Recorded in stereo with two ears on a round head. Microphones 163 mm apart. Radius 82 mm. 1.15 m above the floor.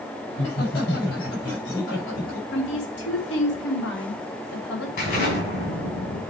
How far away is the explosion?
About 4 m.